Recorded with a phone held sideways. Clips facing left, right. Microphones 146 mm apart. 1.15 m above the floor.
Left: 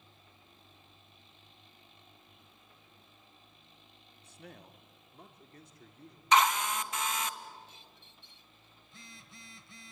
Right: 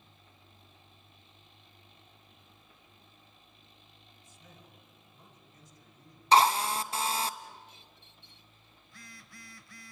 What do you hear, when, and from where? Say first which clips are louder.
4.2 s a man speaking: left 7 dB; 70° left (ahead or behind), 1.7 m; by 6.2 s 65° left (ahead or behind), 3 m
6.3 s a drill: right 3 dB; 35° right (ahead or behind), 0.9 m
8.8 s a phone buzzing: right 1 dB; 25° left (ahead or behind), 1.3 m